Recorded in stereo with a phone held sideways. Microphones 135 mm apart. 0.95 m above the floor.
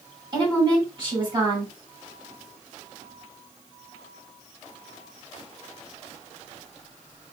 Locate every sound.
0.3 s a woman speaking: 35° right (ahead or behind), 1.8 m